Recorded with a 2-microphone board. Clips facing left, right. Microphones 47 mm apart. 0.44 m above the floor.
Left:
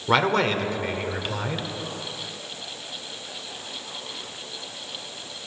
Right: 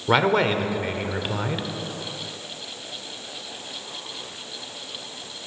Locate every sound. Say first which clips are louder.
0.1 s a man speaking: right 1 dB; 10° right (ahead or behind), 1.1 m